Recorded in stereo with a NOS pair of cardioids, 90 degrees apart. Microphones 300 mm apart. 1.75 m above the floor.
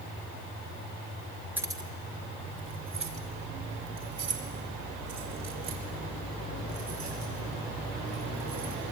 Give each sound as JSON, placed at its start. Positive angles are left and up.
{"t": 1.6, "sound": "keys jangling", "azimuth_deg": -5, "distance_m": 2.5}